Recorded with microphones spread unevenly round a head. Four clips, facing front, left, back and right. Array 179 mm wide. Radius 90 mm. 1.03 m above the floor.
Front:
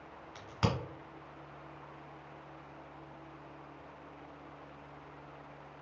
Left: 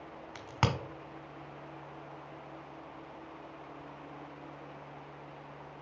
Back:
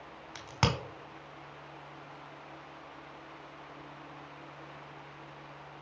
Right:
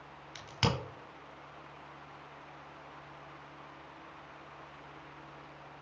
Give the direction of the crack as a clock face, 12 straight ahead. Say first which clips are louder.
Left 1 dB, back 3 dB; 8 o'clock.